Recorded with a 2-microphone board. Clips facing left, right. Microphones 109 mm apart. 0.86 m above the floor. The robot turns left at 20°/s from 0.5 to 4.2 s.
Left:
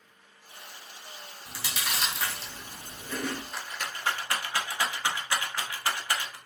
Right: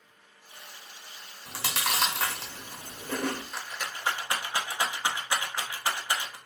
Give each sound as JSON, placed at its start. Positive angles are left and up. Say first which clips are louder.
{"t": 1.5, "sound": "chewing", "louder": "right 4 dB", "side_deg": -70, "distance_m": 0.7}
{"t": 3.5, "sound": "a rattle", "louder": "even", "side_deg": -5, "distance_m": 0.8}